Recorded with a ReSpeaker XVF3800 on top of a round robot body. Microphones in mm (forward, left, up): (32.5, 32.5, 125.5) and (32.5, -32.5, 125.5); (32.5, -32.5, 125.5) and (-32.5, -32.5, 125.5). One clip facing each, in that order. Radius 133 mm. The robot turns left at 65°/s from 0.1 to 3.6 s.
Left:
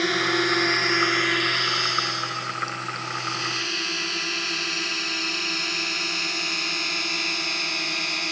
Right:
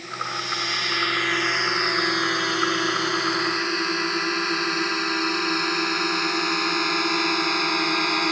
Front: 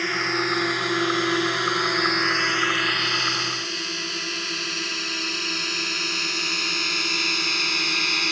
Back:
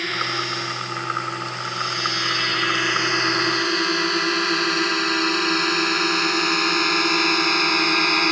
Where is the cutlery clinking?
I don't hear cutlery clinking.